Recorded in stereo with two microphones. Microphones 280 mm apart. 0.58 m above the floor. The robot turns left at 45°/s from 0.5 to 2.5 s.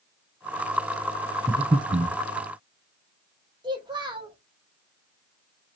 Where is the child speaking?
15° right (ahead or behind), 0.8 m.